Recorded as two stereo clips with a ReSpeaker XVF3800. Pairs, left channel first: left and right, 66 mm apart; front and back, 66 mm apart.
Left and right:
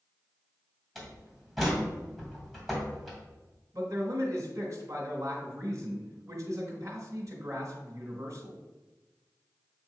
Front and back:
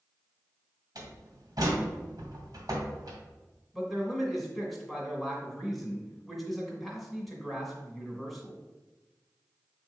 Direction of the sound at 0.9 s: 175° left.